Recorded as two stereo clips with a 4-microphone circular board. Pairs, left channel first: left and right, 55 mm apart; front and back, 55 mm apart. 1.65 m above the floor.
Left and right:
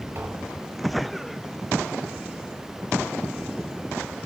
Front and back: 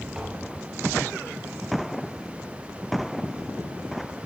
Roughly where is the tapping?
Right.